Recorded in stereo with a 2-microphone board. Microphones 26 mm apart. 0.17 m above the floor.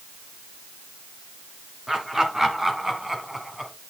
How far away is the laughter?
About 2.5 m.